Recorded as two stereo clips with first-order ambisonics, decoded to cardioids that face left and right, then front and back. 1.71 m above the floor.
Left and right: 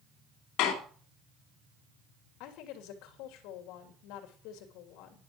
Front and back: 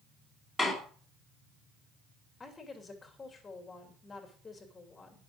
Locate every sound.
0.6 s a door slam: 80° left, 2.5 m
2.4 s a woman speaking: 75° left, 2.5 m